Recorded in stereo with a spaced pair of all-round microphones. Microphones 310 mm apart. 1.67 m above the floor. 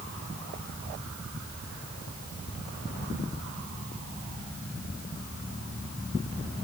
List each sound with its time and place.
Only background noise.